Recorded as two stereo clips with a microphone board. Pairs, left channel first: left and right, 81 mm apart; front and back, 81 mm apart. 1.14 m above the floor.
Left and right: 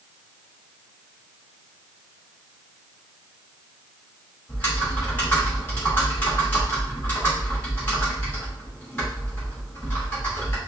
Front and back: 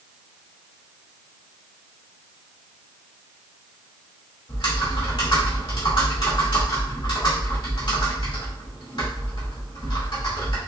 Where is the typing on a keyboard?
20° left, 2 m.